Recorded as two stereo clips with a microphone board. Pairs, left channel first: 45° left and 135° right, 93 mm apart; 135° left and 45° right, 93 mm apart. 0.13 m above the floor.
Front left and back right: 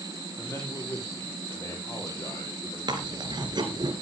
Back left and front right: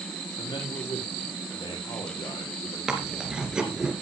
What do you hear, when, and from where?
0.4 s a man speaking: 105° left, 5 m
2.9 s chewing: 125° right, 2.5 m